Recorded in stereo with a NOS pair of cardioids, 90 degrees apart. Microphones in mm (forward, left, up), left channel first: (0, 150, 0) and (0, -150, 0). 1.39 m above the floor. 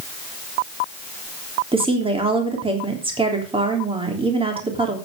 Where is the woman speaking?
15° right, 3.5 m.